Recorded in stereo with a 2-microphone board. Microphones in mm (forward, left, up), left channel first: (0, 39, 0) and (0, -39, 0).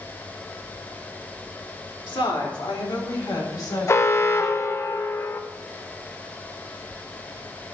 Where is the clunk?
I don't hear a clunk.